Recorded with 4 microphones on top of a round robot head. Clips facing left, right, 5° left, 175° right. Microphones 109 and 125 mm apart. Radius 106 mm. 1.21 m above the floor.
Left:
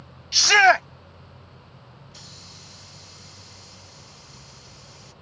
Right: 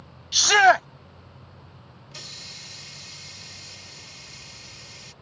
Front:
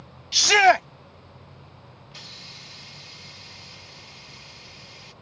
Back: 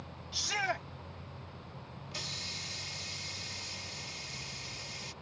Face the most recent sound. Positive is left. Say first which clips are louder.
# right 1 dB, back 2 dB
turn(degrees=-120)